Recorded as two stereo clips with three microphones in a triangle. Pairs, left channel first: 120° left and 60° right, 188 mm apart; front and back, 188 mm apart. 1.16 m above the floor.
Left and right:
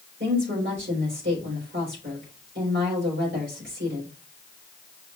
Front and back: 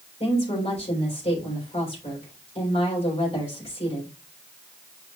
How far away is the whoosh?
No whoosh in this recording.